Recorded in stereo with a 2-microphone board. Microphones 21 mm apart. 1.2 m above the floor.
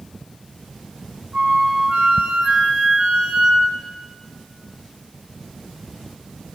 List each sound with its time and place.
1.3 s a flute: 50° right (ahead or behind), 2.0 m